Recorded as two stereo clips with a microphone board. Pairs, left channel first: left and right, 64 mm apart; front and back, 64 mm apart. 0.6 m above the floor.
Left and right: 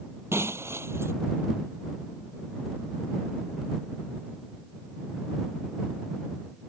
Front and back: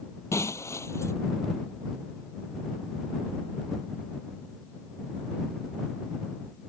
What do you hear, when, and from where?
0.3 s breaking glass: 40° right